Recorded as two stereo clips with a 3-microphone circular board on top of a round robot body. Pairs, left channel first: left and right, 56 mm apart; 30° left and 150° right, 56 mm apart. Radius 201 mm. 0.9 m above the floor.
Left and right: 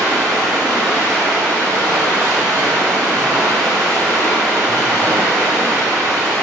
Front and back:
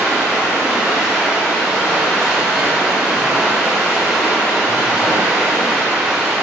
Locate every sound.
0.0 s running water: 85° right, 1.8 m